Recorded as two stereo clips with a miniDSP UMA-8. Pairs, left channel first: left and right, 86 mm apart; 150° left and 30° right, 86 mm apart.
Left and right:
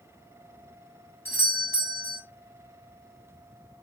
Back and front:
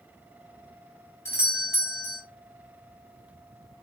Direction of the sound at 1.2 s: 125° left.